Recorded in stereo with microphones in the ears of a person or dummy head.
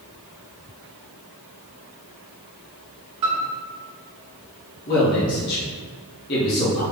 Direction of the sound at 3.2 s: 25° right (ahead or behind).